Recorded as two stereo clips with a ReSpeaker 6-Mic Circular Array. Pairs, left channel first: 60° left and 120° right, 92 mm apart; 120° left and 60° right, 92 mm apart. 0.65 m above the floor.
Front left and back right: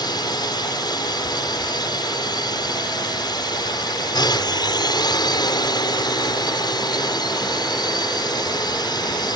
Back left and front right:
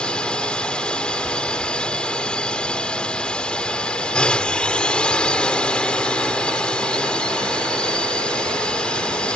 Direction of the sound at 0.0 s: 45° left.